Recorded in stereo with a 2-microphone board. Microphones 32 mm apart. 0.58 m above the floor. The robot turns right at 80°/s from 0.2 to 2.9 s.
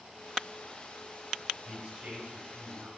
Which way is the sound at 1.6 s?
145° right.